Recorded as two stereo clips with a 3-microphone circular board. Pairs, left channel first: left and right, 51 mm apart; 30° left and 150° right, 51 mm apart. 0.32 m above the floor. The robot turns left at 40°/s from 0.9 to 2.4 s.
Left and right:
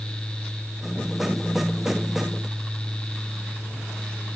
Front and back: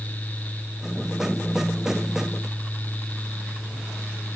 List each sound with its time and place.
Only background noise.